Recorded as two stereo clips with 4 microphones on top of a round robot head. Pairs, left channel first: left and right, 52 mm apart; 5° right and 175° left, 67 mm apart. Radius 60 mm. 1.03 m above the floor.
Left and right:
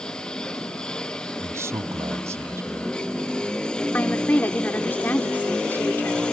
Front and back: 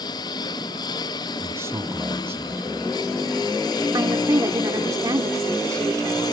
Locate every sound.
0.0 s a lawn mower: 10° left
1.4 s a man speaking: 125° right
3.9 s a woman speaking: 145° left